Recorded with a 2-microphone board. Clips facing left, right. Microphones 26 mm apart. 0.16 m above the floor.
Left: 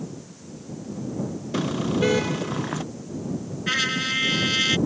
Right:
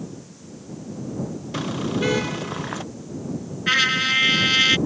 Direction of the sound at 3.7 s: 20° right (ahead or behind).